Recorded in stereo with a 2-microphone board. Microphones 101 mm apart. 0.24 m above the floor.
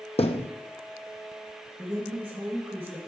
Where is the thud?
75° left (ahead or behind), 0.8 m.